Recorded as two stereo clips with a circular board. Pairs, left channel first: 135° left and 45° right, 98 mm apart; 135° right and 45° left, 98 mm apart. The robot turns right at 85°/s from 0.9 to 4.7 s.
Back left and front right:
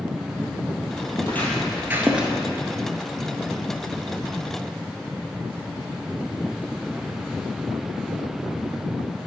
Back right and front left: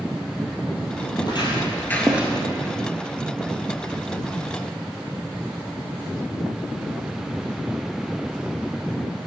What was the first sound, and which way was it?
Footsteps, 175° right.